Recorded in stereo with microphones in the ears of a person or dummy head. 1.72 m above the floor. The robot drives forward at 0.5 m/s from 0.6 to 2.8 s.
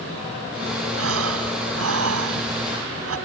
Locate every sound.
1.0 s breathing: 85° right; by 3.2 s 90° right